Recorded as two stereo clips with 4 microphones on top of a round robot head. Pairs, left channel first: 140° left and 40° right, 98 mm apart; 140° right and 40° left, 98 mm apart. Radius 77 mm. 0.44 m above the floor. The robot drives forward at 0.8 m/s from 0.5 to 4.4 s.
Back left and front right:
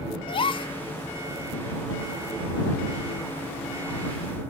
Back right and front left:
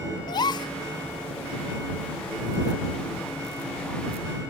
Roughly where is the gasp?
Behind.